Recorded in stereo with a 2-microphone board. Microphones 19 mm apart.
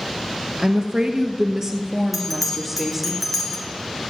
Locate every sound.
0.6 s a woman speaking: 45° right (ahead or behind), 1.6 m; by 3.1 s 15° right (ahead or behind), 2.5 m
2.1 s a bell: centre (ahead or behind), 1.8 m